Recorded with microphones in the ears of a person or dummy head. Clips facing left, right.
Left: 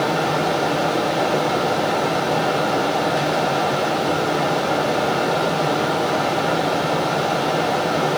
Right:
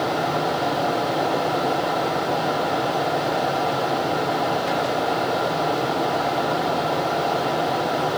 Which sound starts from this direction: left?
A fan, at 0.0 s.